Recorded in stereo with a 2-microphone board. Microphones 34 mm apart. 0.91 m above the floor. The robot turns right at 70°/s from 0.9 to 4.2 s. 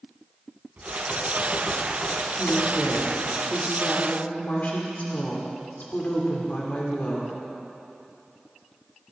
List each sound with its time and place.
0.8 s typing on a keyboard: 60° right, 3 m; by 3.4 s 115° left, 3 m
2.4 s a woman speaking: 75° right, 2.5 m; by 7.3 s 55° left, 2.5 m